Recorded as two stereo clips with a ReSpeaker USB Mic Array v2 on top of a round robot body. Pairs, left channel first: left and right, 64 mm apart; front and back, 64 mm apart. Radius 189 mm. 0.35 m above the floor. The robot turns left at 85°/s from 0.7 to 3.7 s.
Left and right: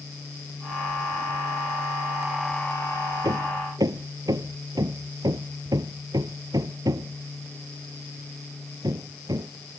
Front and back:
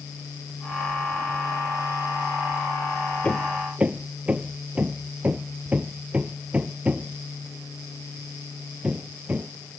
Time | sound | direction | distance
3.2 | hammering | 70° right | ?